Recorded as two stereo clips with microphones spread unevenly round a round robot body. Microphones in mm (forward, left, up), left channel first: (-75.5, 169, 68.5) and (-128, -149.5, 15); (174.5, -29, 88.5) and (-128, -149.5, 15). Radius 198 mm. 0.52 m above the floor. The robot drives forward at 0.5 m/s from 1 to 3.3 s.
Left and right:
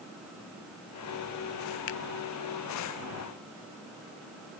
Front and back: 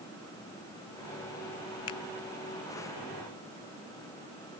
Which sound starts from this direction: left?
A finger snap, at 1.9 s.